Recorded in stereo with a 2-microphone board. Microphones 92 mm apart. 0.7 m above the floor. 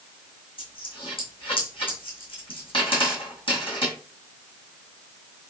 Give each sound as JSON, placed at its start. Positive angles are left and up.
{"t": 0.6, "sound": "a dropped coin", "side_deg": 70, "distance_m": 2.0}